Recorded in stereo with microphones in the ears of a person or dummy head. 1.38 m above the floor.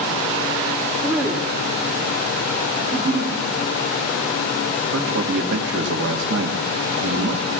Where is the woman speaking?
5° right (ahead or behind), 1.4 m.